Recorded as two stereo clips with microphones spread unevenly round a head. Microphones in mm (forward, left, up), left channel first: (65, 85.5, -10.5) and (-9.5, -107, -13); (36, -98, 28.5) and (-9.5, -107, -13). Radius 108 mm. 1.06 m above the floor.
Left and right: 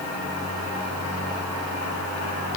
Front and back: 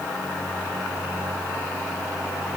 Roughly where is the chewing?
I don't hear chewing.